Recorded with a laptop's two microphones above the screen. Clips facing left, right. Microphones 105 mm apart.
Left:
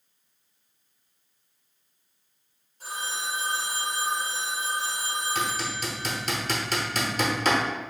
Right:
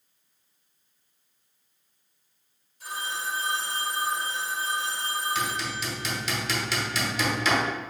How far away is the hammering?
About 0.9 m.